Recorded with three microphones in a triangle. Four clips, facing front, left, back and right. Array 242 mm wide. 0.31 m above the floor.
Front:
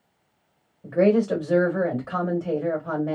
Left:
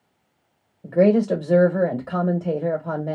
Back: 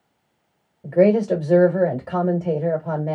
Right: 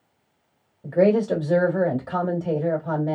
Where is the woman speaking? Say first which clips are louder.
Left 1 dB, back 3 dB; 170° left, 1.1 m.